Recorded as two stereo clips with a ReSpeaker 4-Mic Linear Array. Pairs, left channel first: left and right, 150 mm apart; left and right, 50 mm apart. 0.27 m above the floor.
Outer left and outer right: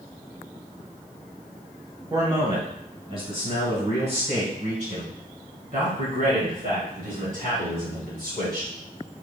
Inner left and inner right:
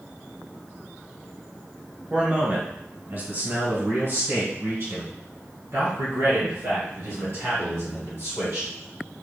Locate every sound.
2.1 s a man speaking: 30° right (ahead or behind), 1.4 m; by 8.7 s 75° right (ahead or behind), 4 m